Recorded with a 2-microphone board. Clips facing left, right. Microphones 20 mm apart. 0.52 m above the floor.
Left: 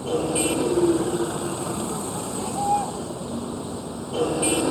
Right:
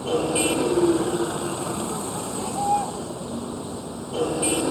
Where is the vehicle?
20° right (ahead or behind); by 4.7 s 10° left (ahead or behind).